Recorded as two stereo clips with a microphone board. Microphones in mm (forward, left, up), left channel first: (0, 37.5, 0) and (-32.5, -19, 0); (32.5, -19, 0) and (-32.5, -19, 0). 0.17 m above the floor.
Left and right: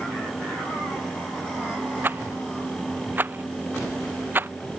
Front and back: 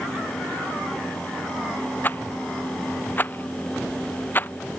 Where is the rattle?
60° right.